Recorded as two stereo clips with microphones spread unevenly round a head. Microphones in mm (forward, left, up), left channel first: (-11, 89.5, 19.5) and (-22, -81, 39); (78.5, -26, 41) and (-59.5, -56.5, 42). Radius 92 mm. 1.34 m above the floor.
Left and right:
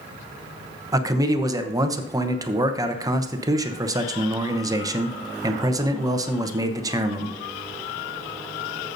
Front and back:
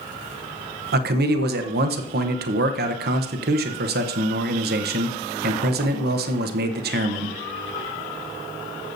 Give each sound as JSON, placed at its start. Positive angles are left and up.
{"t": 0.9, "sound": "a man speaking", "azimuth_deg": -165, "distance_m": 0.9}